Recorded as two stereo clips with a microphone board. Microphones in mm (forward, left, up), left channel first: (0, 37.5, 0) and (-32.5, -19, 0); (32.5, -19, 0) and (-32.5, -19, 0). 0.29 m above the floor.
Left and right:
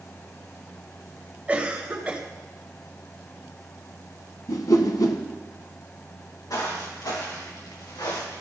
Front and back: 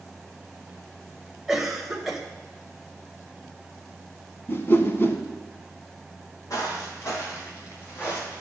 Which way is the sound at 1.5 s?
105° right.